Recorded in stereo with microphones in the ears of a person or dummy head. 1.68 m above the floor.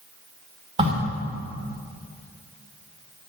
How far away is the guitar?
I don't hear a guitar.